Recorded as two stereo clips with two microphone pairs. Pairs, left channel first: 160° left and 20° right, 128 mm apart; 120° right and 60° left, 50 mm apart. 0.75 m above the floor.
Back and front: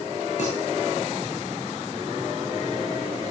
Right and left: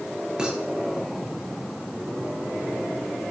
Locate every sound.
0.4 s dishes clattering: 140° left, 8.5 m